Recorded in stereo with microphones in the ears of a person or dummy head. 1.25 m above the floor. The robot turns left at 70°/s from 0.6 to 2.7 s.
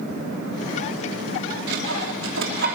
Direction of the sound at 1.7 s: 60° right (ahead or behind).